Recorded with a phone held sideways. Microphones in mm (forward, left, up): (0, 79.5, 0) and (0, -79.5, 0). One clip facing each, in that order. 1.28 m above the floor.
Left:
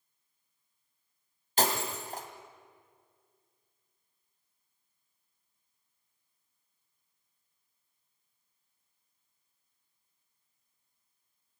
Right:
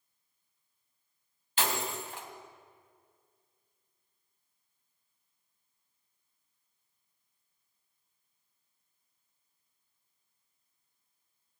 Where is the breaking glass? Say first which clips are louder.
Left 3 dB; 40° left (ahead or behind), 2 m.